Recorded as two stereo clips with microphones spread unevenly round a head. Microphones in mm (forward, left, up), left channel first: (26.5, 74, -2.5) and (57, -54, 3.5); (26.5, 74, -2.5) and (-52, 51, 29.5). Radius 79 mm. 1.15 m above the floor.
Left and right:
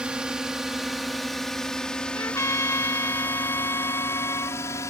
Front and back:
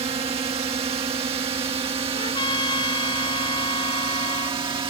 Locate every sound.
0.0 s a drone: 160° right; by 4.9 s 175° left
2.1 s a trumpet: 35° left